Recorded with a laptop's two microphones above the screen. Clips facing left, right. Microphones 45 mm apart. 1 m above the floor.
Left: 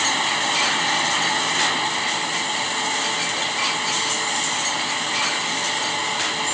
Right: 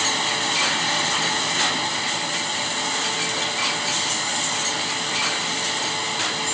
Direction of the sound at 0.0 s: 10° left (ahead or behind).